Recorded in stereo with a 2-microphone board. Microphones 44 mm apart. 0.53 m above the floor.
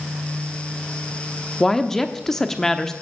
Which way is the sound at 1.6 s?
10° left (ahead or behind).